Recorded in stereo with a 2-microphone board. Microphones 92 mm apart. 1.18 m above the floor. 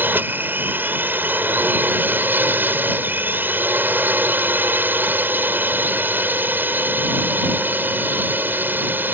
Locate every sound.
0.0 s a drone: 20° right (ahead or behind)